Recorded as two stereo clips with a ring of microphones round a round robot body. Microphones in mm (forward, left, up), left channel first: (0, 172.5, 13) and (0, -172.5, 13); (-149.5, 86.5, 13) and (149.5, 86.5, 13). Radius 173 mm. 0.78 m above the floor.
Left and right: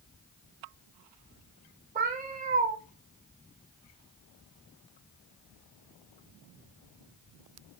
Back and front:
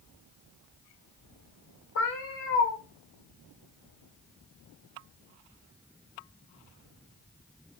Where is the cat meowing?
150° right, 0.5 m.